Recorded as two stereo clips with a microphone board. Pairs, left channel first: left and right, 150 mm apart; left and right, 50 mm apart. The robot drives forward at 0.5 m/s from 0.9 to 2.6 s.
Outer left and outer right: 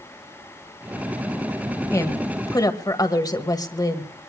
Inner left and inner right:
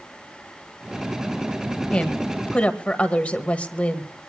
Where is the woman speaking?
20° left (ahead or behind), 1.9 m; by 4.1 s 25° left (ahead or behind), 1.7 m.